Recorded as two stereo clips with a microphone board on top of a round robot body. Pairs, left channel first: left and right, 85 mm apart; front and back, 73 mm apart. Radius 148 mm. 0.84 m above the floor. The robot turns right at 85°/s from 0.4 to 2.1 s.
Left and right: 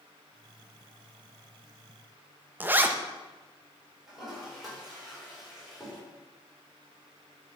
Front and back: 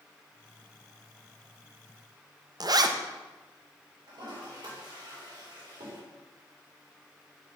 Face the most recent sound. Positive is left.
turn(degrees=-175)